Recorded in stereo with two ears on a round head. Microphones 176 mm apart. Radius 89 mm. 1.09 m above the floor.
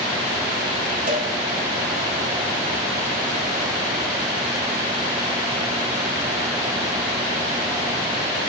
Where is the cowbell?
40° right (ahead or behind), 1.0 m.